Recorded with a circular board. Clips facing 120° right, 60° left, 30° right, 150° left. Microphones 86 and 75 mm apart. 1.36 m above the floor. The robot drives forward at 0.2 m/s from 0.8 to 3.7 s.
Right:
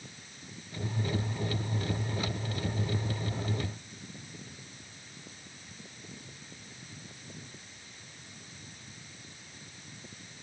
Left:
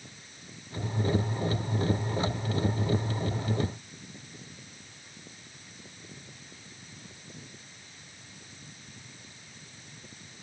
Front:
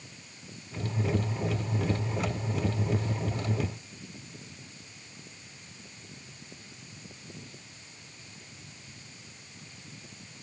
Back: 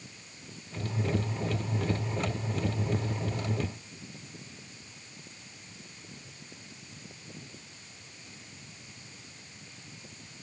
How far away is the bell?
I don't hear a bell.